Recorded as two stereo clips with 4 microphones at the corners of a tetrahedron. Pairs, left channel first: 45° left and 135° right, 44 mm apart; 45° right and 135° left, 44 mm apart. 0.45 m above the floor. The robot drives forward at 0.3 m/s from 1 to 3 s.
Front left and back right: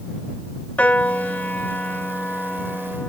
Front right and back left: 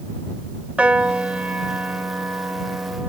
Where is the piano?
85° left; by 3.1 s 110° left.